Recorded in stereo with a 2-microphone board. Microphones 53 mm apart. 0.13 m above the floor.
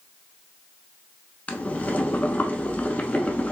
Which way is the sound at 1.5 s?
25° left (ahead or behind).